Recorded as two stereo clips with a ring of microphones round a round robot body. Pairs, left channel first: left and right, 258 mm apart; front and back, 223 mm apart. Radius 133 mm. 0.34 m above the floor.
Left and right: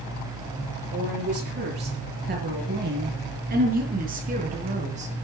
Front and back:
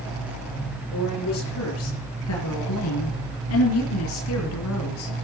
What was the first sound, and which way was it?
A woman speaking, 40° right.